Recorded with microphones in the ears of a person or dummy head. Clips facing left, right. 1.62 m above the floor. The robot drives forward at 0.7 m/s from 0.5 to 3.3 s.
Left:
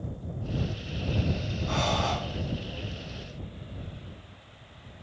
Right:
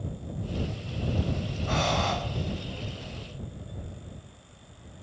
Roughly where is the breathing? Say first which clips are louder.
Right 1 dB; right.